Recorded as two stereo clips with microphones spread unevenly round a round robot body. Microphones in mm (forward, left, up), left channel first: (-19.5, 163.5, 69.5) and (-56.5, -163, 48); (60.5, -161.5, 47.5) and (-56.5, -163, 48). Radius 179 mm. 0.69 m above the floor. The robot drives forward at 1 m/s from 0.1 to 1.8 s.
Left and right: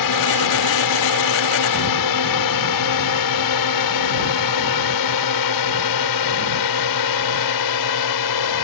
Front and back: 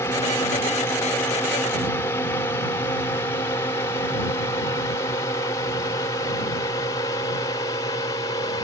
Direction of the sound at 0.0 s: 75° left.